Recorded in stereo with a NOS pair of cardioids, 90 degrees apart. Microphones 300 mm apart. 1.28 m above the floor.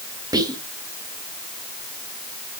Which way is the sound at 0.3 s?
15° right.